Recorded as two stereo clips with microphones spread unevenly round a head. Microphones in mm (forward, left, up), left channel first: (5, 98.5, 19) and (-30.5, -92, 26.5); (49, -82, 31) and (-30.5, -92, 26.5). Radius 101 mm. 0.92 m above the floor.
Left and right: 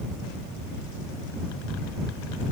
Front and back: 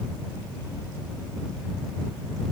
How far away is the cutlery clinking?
I don't hear cutlery clinking.